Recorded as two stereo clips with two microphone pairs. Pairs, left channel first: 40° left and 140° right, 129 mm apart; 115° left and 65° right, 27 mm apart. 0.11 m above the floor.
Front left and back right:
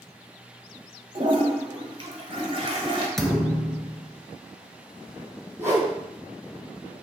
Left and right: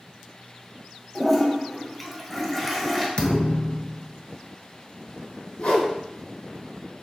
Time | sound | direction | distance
1.1 | a toilet flushing | 160° right | 1.2 m
3.2 | a thud | 125° left | 0.7 m
5.6 | a whoosh | 145° left | 1.9 m